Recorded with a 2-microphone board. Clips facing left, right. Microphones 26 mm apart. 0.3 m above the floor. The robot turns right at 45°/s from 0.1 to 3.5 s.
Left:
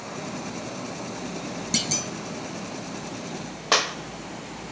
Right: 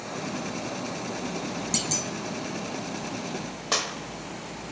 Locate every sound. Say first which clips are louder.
1.7 s a clunk: left 4 dB; 30° left (ahead or behind), 0.5 m; by 2.1 s 15° left (ahead or behind), 0.5 m
3.7 s a clap: left 6 dB; 25° left (ahead or behind), 0.7 m